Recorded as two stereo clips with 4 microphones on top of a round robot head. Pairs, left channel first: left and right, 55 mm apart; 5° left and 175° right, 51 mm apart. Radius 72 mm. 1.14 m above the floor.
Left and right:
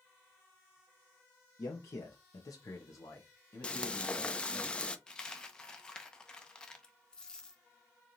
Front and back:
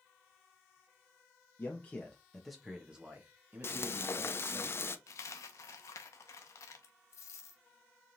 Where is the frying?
25° left, 0.8 m.